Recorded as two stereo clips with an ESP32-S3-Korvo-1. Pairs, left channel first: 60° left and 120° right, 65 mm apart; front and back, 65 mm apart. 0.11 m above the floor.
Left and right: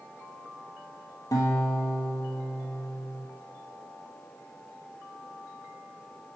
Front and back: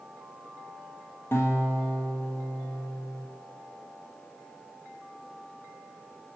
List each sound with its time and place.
1.3 s a guitar: 45° left, 1.7 m